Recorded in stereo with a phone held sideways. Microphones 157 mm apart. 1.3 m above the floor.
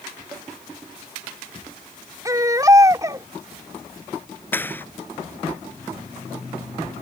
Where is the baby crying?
20° right (ahead or behind).